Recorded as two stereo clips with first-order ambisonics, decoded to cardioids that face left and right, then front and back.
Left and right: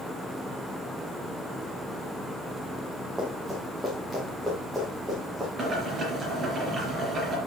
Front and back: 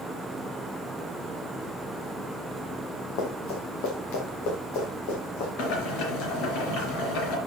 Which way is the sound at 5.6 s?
20° right.